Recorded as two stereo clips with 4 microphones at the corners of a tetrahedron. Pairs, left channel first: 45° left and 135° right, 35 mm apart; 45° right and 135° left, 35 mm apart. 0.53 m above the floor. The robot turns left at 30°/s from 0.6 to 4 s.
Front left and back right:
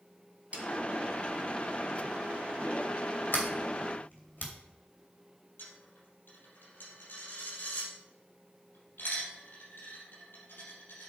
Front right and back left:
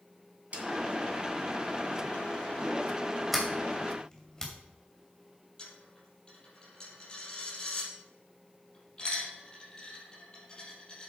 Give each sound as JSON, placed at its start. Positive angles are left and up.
{"t": 0.5, "sound": "a snare drum", "azimuth_deg": 180, "distance_m": 2.0}
{"t": 3.3, "sound": "a sliding door", "azimuth_deg": 50, "distance_m": 2.5}
{"t": 5.6, "sound": "a dropped coin", "azimuth_deg": 25, "distance_m": 5.0}